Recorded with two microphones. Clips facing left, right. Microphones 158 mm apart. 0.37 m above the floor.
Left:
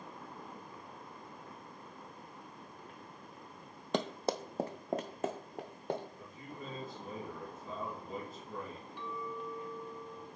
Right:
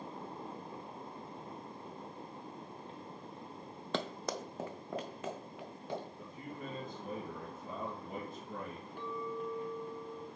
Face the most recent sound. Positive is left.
turn(degrees=-50)  # may be behind; listen again after turning